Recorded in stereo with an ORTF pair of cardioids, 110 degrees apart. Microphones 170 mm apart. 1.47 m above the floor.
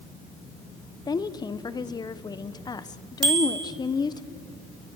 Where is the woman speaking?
25° left, 1.2 m.